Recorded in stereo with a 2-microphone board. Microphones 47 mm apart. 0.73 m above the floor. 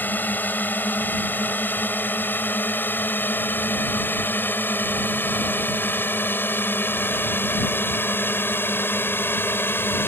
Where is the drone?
45° left (ahead or behind); by 10.1 s 50° left (ahead or behind).